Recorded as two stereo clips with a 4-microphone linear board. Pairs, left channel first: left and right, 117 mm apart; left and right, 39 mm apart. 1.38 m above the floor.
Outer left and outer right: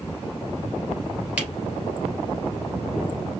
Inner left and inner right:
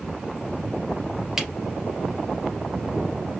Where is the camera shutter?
10° right (ahead or behind), 2.5 m.